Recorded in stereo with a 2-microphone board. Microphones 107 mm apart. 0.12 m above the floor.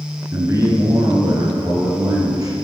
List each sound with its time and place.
0.3 s a man speaking: 25° right (ahead or behind), 1.6 m; by 2.5 s 35° right (ahead or behind), 2.5 m